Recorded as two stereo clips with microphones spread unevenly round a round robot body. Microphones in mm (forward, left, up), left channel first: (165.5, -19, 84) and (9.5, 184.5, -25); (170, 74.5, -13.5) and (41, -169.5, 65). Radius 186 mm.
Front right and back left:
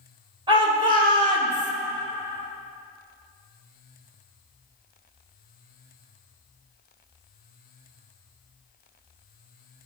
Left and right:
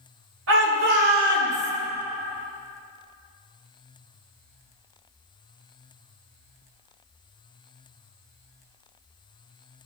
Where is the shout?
170° right, 2 m; by 1.7 s 145° left, 1.2 m.